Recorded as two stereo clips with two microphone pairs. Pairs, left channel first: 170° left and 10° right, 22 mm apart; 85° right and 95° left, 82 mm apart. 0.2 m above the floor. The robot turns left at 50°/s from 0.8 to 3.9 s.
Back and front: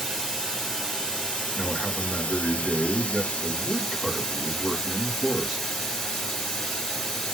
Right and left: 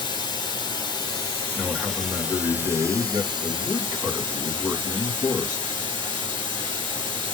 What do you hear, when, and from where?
0.0 s running water: 110° right, 3.5 m; by 7.3 s 95° left, 3.5 m
1.6 s a man speaking: 165° left, 1.8 m; by 5.7 s 50° left, 1.8 m